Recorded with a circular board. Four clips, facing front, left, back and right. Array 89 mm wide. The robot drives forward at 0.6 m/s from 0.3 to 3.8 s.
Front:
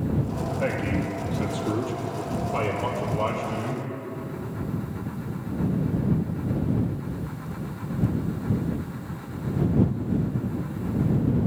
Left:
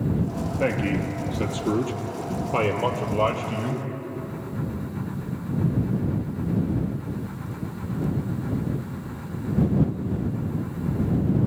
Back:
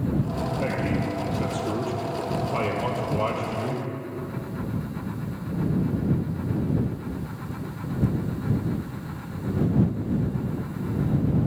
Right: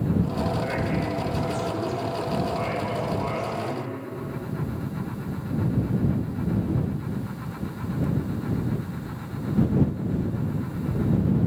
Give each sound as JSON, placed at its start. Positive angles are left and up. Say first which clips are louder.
{"t": 0.6, "sound": "a man speaking", "louder": "left 2 dB, front 1 dB", "azimuth_deg": 80, "distance_m": 4.5}